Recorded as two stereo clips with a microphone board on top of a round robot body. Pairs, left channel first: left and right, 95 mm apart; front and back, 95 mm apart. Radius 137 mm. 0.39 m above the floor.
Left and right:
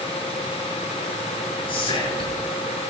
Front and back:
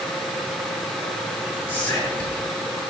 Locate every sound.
1.7 s whispering: 70° left, 7.5 m